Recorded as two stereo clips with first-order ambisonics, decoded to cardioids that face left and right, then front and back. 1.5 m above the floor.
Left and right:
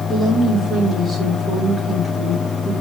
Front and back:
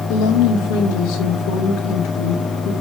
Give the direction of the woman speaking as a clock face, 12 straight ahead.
12 o'clock.